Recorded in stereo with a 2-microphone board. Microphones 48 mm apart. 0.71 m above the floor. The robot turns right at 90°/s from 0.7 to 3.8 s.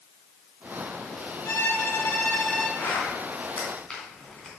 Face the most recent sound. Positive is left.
turn(degrees=20)  # may be behind; listen again after turning